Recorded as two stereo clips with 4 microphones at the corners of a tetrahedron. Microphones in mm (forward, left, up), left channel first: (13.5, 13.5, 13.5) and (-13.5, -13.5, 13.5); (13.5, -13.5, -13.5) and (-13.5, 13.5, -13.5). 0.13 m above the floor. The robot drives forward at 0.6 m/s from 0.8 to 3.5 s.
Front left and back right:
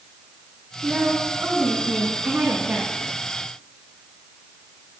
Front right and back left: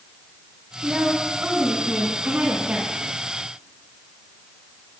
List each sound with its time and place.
0.8 s a woman speaking: straight behind, 7.5 m